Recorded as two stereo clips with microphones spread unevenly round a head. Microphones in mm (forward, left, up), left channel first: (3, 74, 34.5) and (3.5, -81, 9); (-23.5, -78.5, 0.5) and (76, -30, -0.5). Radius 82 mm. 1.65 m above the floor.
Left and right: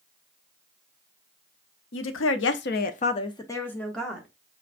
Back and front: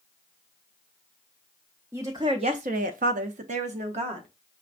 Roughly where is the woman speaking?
Left.